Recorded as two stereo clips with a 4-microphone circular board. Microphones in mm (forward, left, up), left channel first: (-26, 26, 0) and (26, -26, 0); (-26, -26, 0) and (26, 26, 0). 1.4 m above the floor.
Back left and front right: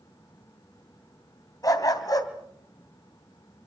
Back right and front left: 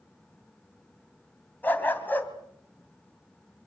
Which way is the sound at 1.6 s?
165° left.